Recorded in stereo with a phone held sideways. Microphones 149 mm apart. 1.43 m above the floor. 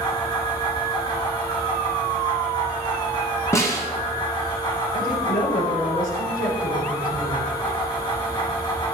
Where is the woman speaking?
90° left, 5 m.